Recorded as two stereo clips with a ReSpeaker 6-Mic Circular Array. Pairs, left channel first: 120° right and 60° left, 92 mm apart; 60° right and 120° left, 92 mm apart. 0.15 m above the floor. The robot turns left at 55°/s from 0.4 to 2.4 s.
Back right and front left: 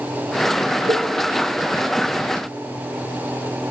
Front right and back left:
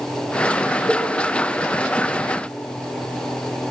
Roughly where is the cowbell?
Ahead left.